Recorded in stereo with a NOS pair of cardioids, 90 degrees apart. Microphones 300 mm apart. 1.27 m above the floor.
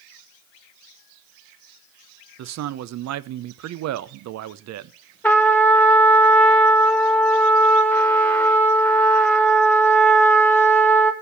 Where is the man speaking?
60° right, 0.6 m.